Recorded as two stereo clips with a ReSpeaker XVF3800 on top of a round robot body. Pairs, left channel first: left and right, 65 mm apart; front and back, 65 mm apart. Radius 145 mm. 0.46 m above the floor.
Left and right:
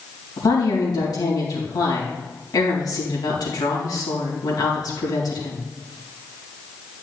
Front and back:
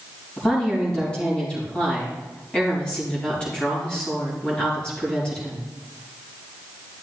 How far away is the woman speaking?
About 4 m.